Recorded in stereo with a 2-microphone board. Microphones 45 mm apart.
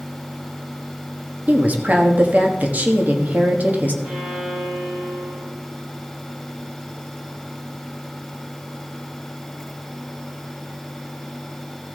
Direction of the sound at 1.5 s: 40° right (ahead or behind).